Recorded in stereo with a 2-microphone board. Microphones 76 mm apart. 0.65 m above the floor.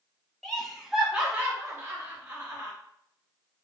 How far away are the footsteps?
No footsteps in this recording.